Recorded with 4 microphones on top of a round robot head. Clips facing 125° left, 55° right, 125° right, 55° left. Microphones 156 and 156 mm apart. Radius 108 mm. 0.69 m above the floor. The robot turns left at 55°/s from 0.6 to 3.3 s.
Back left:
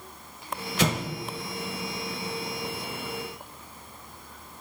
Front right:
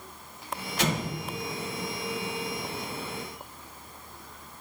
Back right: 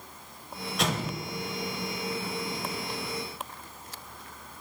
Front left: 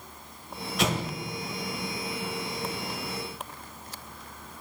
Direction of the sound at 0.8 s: 145° left.